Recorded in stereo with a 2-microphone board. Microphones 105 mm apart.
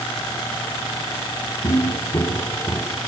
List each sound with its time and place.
1.6 s footsteps: 45° left (ahead or behind), 3.5 m; by 3.0 s 10° left (ahead or behind), 3 m